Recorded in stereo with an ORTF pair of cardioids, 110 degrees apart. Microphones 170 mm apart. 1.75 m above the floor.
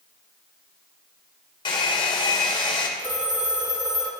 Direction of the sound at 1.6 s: 25° left.